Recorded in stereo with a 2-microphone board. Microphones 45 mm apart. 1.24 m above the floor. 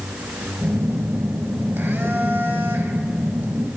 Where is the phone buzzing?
60° right (ahead or behind), 0.8 m.